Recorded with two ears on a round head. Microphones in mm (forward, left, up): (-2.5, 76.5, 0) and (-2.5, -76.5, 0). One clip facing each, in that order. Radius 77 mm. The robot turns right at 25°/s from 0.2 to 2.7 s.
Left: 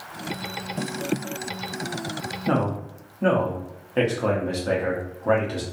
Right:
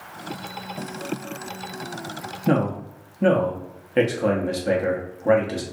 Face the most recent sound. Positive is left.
turn(degrees=-20)  # may be behind; listen again after turning